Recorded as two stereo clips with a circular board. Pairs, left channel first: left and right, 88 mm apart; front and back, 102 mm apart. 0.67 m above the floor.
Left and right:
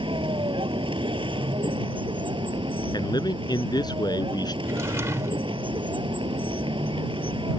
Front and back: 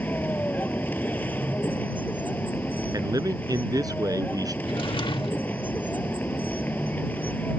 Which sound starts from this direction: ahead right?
A drawer, at 4.6 s.